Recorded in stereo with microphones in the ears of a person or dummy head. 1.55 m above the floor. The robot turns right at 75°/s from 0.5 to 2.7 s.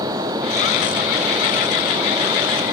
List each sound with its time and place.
Only background noise.